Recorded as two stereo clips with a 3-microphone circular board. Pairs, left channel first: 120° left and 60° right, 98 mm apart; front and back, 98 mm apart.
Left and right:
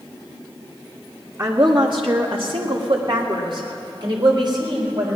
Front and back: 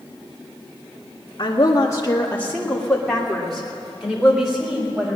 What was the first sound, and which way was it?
A woman speaking, 25° right.